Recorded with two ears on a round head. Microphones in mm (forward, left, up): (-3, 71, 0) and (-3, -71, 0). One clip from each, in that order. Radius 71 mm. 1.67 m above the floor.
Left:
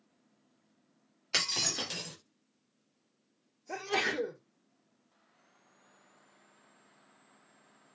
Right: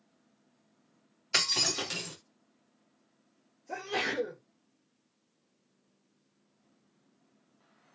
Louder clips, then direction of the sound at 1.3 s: Right 3 dB; centre (ahead or behind).